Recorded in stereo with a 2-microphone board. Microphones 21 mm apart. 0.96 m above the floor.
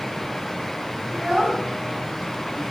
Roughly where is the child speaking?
Right.